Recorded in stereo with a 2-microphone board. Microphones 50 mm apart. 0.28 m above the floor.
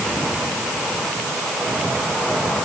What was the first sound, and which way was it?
Only background noise.